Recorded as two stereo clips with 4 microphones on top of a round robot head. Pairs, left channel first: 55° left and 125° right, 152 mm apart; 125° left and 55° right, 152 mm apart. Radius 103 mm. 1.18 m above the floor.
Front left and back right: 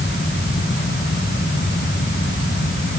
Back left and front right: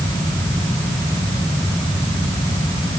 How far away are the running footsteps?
I don't hear running footsteps.